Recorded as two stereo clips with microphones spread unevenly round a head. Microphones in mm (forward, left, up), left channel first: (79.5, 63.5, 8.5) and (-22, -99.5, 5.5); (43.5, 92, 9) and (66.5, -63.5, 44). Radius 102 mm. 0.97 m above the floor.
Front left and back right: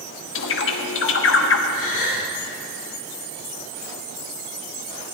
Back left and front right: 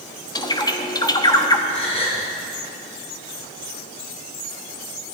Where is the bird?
35° left, 1.2 m.